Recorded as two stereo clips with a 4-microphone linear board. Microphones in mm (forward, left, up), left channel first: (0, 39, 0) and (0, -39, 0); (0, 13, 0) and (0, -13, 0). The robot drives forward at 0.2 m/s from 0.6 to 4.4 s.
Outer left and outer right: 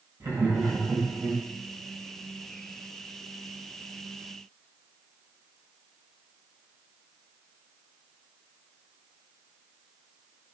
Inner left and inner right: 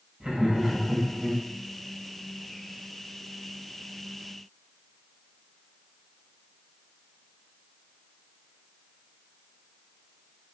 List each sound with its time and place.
0.2 s laughter: 35° right (ahead or behind), 4 m